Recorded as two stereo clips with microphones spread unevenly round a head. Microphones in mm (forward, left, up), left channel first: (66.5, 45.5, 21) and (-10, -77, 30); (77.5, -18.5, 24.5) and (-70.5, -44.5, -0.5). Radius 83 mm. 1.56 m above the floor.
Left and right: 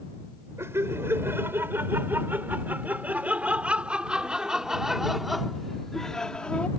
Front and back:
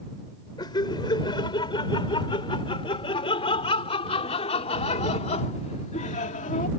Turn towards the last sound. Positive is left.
turn(degrees=-25)